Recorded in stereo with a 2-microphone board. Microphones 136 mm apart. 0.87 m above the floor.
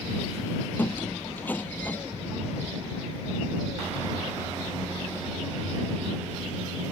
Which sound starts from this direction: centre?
A squeak, at 0.8 s.